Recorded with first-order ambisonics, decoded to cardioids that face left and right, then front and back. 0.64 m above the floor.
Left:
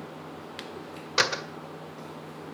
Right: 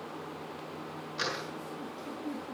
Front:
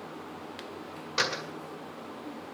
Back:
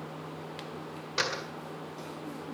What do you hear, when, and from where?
1.2 s a door slam: 85° left, 1.8 m